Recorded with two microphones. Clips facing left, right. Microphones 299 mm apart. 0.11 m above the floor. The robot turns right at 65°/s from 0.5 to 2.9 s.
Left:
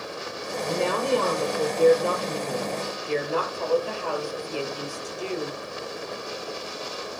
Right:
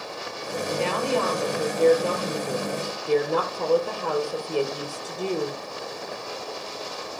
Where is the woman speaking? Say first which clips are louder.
Left 1 dB; 90° left, 3 m; by 5.6 s 120° right, 3 m.